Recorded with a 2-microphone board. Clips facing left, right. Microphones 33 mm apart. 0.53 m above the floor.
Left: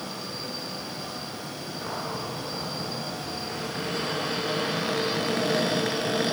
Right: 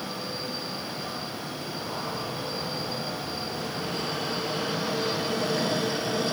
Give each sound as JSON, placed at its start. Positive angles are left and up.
{"t": 1.8, "sound": "a cupboard door", "side_deg": 70, "distance_m": 8.0}